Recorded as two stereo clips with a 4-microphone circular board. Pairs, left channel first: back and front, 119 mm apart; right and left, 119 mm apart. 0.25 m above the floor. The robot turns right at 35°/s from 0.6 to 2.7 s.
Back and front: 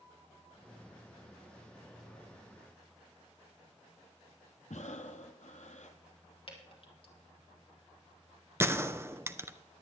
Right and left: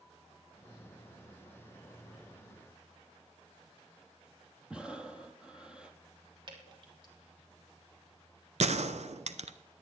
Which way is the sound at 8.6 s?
70° left.